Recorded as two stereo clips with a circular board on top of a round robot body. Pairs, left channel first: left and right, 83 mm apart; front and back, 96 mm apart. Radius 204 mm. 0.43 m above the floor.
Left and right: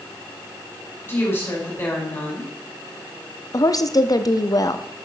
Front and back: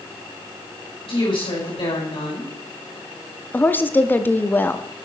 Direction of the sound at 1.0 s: 25° left.